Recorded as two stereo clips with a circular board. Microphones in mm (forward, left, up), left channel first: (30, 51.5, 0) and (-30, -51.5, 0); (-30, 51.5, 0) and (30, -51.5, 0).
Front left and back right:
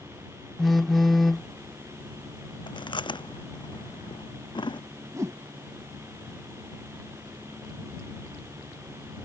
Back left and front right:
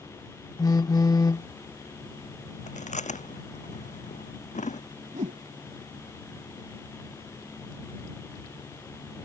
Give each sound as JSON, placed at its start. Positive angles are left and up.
{"t": 0.6, "sound": "a phone buzzing", "azimuth_deg": 150}
{"t": 2.7, "sound": "chewing", "azimuth_deg": 110}
{"t": 5.1, "sound": "a whoosh", "azimuth_deg": -55}